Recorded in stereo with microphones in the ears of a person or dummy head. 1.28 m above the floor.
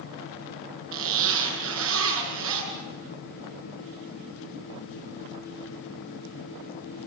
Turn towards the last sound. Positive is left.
turn(degrees=-80)